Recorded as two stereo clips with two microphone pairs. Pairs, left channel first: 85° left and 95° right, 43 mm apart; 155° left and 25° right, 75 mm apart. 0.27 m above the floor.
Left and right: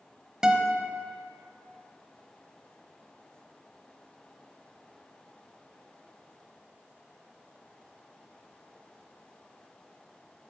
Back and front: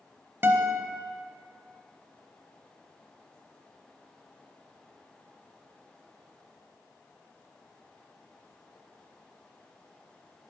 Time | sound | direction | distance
0.4 | a guitar | 30° right | 0.8 m